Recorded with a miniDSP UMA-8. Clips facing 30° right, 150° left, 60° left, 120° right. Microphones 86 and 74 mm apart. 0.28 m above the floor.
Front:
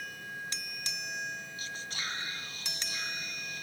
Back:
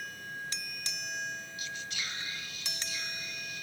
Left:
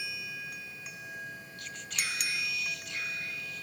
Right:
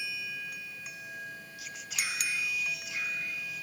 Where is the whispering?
40° right, 1.3 m.